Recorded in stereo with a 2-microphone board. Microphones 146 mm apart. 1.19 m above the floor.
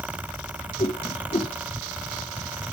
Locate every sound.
0.8 s a whoosh: 45° left (ahead or behind), 0.6 m